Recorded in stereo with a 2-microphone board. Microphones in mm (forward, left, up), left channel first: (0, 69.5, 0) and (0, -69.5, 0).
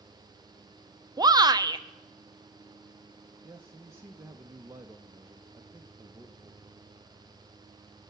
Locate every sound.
1.2 s a shout: 30° right (ahead or behind), 0.7 m
3.4 s a man speaking: 20° right (ahead or behind), 0.8 m